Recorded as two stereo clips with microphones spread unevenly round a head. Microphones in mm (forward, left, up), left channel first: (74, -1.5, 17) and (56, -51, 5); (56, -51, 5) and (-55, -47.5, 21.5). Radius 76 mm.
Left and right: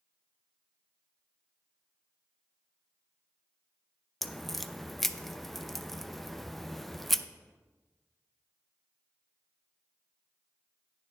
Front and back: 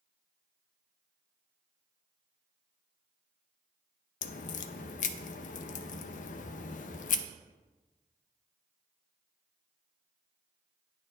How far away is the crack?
About 0.6 m.